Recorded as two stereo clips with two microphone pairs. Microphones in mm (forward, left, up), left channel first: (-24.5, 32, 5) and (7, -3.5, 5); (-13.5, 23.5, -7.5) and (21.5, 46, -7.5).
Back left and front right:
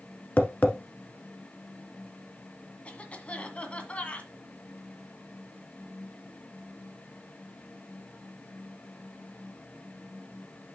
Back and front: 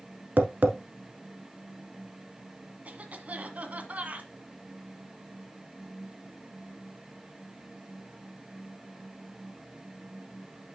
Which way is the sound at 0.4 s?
75° left.